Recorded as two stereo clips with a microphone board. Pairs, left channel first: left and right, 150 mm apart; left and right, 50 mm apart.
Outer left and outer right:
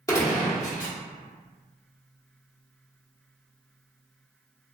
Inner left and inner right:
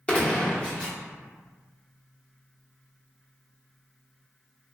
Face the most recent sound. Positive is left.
turn(degrees=20)  # may be behind; listen again after turning